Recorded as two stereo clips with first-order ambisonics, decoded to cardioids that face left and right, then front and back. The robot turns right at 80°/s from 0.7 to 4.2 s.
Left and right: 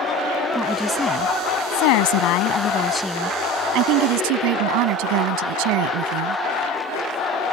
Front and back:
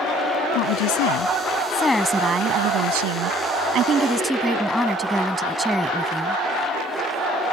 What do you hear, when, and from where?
0.6 s a woman speaking: 15° right; by 6.4 s 95° right